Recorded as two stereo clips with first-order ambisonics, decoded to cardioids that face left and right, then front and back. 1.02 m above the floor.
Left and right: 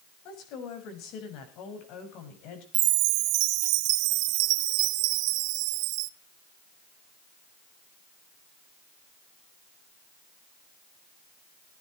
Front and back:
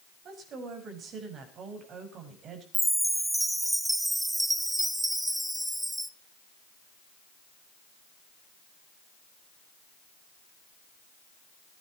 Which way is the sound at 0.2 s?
125° left.